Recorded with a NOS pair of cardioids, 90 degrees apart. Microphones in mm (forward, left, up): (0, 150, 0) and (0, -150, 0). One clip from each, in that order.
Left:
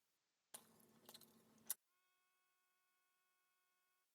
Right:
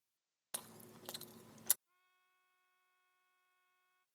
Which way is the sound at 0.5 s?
65° right.